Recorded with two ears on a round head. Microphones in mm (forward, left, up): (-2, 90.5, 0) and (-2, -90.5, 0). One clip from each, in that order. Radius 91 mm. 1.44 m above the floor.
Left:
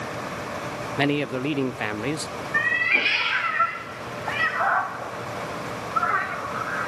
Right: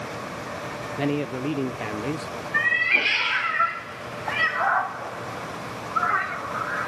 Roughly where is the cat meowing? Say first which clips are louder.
Right 1 dB; centre.